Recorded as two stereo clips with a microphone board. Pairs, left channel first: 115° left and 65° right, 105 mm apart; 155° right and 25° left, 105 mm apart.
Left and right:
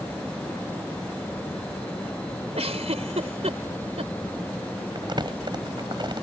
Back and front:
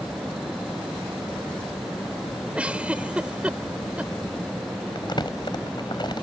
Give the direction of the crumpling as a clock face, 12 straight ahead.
4 o'clock.